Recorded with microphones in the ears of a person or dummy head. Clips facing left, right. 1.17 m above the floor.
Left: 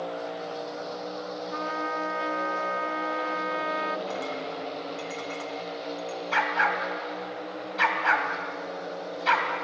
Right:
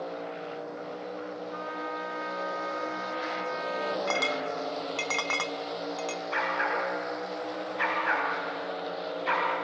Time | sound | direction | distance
1.5 | a trumpet | 60° left (ahead or behind) | 0.8 m
4.1 | a clink | 85° right | 0.7 m
6.3 | a dog barking | 80° left | 3.5 m